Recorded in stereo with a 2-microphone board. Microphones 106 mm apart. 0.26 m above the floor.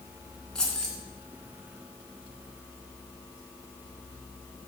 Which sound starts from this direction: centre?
Keys jangling, at 0.6 s.